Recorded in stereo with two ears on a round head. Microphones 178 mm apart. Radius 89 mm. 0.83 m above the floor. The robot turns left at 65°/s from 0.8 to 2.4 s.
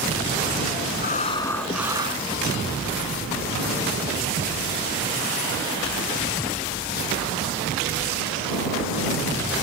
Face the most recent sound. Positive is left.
turn(degrees=-45)